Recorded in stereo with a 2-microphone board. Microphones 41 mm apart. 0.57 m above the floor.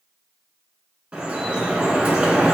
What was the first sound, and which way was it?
Dripping, 30° right (ahead or behind).